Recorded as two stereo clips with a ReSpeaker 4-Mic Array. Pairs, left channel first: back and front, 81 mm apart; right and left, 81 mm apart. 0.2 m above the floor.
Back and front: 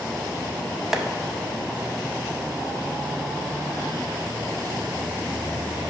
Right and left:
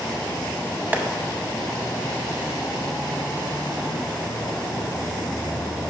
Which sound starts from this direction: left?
Tapping, at 0.9 s.